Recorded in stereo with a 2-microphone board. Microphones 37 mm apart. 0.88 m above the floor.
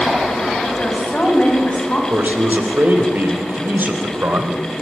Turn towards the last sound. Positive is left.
turn(degrees=-60)  # may be behind; listen again after turning